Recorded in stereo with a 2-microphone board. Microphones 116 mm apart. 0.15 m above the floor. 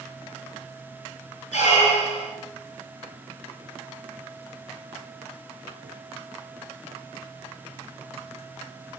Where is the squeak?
70° left (ahead or behind), 0.7 m.